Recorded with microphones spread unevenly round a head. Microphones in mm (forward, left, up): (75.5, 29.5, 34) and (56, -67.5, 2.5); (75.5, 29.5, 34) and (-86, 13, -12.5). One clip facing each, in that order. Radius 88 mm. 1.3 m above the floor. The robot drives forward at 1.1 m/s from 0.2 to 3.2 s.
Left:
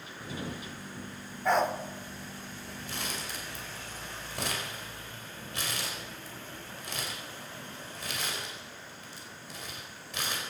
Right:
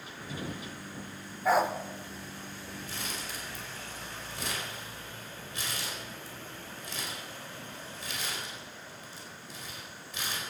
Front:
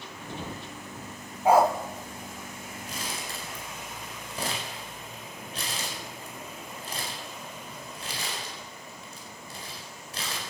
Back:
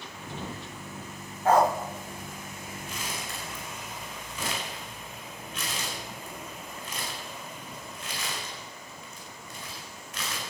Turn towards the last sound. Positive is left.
turn(degrees=60)